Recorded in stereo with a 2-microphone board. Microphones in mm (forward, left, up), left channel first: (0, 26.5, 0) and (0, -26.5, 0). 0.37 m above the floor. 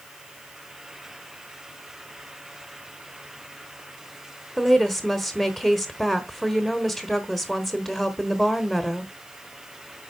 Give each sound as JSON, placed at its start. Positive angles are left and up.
{"t": 4.6, "sound": "a woman speaking", "side_deg": 0, "distance_m": 1.0}